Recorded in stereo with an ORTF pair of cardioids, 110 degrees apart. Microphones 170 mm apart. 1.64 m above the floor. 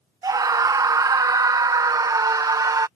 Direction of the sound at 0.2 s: 20° right.